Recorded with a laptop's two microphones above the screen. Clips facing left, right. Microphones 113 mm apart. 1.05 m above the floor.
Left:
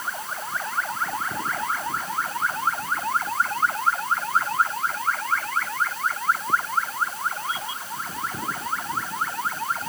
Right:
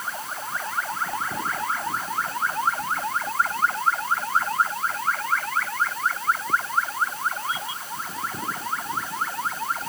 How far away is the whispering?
I don't hear whispering.